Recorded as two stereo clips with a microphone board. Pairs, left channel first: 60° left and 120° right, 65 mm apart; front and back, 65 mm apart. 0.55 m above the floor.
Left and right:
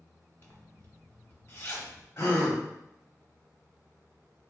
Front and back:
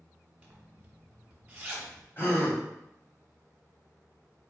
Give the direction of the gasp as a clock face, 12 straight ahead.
11 o'clock.